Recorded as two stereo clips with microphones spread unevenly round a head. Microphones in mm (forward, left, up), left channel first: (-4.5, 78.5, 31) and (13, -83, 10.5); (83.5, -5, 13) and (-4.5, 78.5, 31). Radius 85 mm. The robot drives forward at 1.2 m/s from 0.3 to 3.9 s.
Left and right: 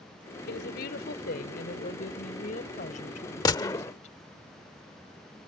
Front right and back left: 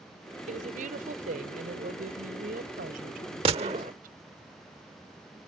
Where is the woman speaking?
125° left; by 4.2 s 150° left.